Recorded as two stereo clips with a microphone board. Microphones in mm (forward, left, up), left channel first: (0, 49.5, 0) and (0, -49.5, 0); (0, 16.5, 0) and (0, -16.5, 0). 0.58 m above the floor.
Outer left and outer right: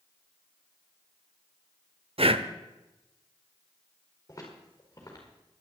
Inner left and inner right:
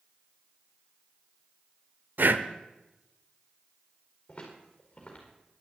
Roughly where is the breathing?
Right.